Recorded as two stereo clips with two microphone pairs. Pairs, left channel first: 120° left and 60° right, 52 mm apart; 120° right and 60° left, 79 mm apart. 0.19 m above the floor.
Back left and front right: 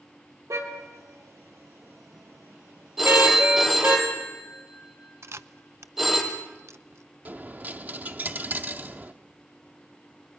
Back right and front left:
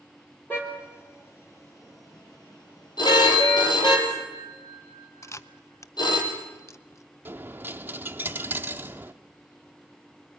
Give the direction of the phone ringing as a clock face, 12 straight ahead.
5 o'clock.